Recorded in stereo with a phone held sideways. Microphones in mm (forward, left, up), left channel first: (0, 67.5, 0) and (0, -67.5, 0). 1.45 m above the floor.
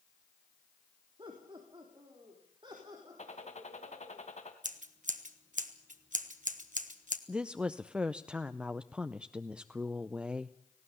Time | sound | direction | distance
1.2 | laughter | 35° right (ahead or behind) | 3 m
3.2 | a gunshot | 55° left (ahead or behind) | 2.5 m
4.6 | scissors | 70° right (ahead or behind) | 1.4 m
7.3 | a woman speaking | 10° right (ahead or behind) | 0.5 m